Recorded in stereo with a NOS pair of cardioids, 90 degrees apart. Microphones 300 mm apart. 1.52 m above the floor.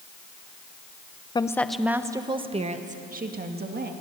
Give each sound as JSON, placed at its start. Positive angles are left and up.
{"t": 1.4, "sound": "a woman speaking", "azimuth_deg": 15, "distance_m": 1.0}